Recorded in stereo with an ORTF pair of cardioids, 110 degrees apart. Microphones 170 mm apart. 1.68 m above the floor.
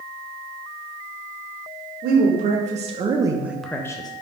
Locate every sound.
2.0 s a woman speaking: 65° right, 1.1 m; by 4.1 s 25° left, 0.7 m